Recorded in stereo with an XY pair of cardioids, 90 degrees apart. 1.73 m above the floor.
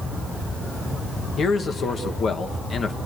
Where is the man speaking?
60° left, 1.4 m.